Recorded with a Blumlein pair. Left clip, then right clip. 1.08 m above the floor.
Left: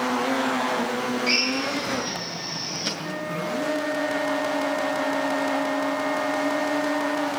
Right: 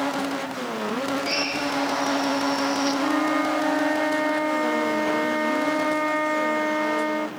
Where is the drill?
15° left, 8 m.